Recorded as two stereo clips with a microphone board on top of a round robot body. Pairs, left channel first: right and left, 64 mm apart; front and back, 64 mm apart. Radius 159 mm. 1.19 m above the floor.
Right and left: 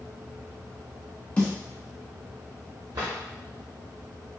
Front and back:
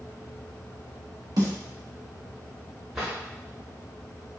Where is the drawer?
90° left, 0.9 m.